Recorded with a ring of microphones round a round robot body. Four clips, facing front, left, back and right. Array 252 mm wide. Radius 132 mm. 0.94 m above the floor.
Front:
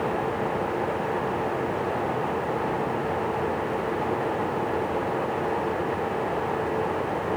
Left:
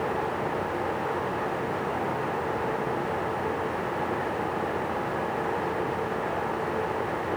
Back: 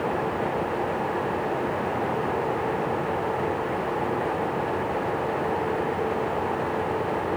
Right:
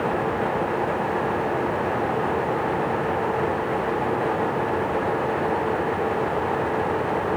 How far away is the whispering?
I don't hear whispering.